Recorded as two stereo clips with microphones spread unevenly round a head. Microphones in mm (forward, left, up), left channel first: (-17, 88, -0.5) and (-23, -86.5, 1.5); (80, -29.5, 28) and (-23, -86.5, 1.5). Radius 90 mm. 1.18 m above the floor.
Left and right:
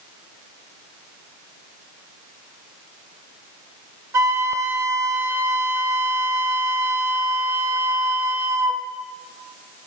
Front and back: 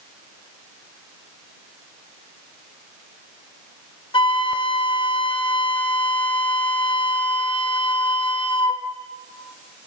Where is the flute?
15° right, 1.3 m.